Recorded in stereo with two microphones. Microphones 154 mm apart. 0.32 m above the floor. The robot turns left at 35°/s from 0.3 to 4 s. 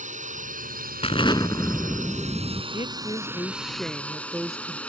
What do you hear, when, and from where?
0.0 s a drone: 60° right; by 4.9 s 170° left
1.0 s an explosion: 40° left; by 2.6 s 15° right
2.7 s a woman speaking: 40° left; by 4.8 s straight ahead